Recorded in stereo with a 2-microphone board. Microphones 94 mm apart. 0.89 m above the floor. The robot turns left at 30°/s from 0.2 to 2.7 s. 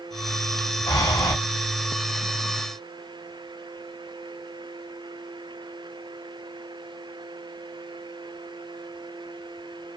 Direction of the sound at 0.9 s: 45° left (ahead or behind).